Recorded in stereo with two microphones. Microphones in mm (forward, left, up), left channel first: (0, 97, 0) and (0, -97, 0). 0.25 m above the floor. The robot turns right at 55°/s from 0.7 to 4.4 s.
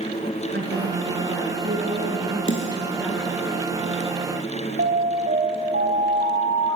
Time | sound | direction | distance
0.5 | a woman speaking | 115° right | 4 m
2.5 | a snare drum | 80° left | 4.5 m
4.8 | an alarm | 65° right (ahead or behind) | 8 m